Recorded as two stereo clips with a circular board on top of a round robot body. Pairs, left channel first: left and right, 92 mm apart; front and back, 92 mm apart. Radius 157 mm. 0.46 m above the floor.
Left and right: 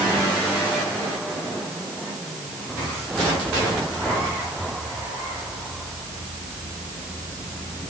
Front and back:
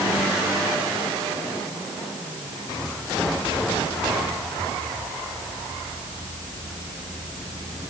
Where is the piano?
I don't hear a piano.